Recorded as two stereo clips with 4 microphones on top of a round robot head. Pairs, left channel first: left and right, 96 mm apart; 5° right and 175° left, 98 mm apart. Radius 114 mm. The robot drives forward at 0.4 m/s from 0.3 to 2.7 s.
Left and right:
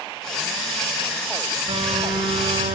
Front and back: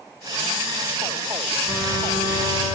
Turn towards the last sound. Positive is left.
turn(degrees=-130)